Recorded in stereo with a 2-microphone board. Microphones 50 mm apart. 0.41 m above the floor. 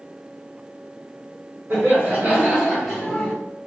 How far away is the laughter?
About 1.6 m.